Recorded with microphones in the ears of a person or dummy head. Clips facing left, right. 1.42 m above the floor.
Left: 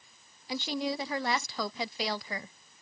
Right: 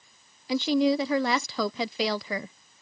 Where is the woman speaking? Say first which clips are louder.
Right 10 dB; 70° right (ahead or behind).